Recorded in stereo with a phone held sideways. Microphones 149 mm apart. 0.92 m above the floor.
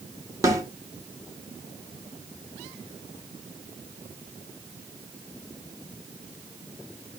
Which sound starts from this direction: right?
A snare drum, at 0.4 s.